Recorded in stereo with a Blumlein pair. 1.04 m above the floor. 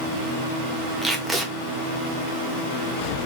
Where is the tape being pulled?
10° right, 1.2 m.